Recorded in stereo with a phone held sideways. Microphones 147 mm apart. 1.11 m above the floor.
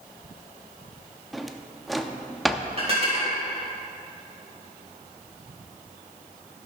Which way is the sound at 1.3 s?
Centre (ahead or behind).